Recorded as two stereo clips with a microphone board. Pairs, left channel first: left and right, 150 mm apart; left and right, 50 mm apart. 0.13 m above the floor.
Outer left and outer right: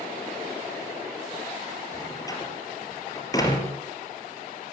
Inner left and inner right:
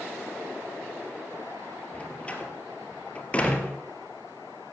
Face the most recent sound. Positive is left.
turn(degrees=25)  # may be behind; listen again after turning